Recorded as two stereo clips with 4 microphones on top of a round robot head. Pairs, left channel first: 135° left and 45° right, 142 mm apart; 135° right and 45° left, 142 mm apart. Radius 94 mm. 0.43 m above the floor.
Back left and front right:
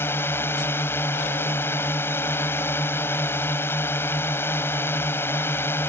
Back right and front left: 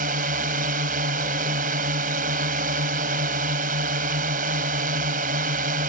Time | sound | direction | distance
0.0 | a drone | 60° left | ?